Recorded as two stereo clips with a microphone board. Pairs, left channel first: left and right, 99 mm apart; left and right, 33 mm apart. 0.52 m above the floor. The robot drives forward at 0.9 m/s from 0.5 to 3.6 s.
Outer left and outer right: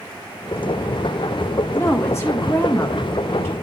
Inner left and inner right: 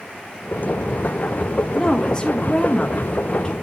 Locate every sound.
1.7 s a woman speaking: 25° left (ahead or behind), 1.7 m; by 3.5 s 30° left (ahead or behind), 1.5 m